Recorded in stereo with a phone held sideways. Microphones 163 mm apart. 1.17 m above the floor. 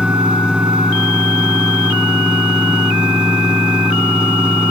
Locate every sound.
0.0 s a fan: 5° right (ahead or behind)